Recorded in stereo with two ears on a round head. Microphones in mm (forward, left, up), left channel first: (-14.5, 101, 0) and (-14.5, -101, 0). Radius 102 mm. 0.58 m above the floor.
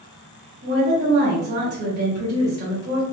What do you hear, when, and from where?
0.6 s a woman speaking: 50° right (ahead or behind), 1.7 m